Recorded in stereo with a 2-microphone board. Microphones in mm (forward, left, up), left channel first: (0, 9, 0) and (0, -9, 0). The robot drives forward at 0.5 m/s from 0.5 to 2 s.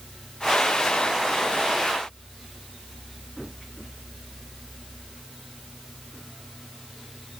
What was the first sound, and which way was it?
Only background noise.